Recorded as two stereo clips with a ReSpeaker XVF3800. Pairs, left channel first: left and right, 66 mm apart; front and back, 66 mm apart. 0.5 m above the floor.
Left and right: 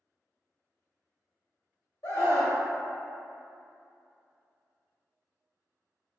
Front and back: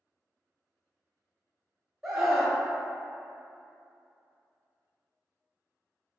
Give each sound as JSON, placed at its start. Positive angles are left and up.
{"t": 2.0, "sound": "a scream", "azimuth_deg": 95, "distance_m": 1.9}